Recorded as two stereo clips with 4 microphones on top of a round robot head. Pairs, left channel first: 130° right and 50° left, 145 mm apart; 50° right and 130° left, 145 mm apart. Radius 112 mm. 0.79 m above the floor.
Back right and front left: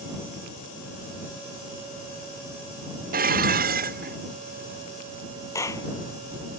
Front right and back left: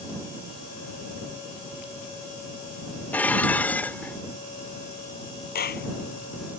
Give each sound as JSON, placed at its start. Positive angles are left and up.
{"t": 3.1, "sound": "dishes clattering", "azimuth_deg": 30}
{"t": 5.5, "sound": "a clap", "azimuth_deg": -60}